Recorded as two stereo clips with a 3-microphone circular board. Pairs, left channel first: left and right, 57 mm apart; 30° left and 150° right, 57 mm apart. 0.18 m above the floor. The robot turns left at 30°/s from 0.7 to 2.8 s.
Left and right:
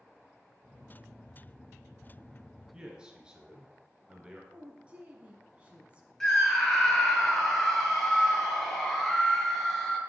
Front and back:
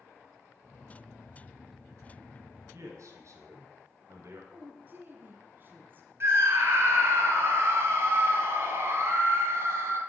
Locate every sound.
2.7 s a man speaking: 160° right, 2.5 m
4.5 s a woman speaking: 140° right, 1.3 m
6.2 s a scream: 170° left, 3 m